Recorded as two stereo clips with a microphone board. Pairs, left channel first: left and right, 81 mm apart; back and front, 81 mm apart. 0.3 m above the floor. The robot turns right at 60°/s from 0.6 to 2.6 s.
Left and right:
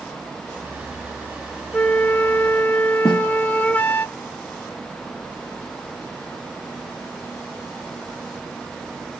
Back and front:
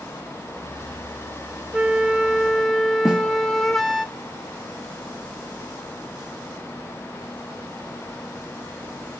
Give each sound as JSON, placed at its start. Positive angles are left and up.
{"t": 1.7, "sound": "a flute", "azimuth_deg": 50, "distance_m": 0.5}
{"t": 3.0, "sound": "a snare drum", "azimuth_deg": 85, "distance_m": 1.1}